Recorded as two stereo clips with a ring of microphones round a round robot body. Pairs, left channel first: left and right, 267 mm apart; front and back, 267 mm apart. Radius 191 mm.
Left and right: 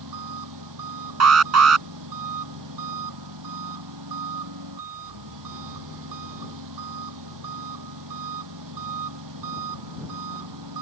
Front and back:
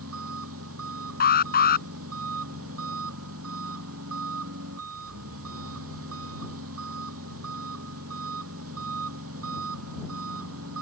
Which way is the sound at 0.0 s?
125° right.